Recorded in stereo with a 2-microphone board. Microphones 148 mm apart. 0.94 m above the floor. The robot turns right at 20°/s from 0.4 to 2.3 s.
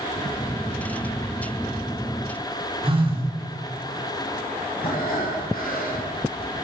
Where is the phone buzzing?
35° right (ahead or behind), 2 m.